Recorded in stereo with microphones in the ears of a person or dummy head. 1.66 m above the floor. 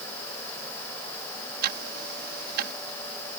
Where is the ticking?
50° right (ahead or behind).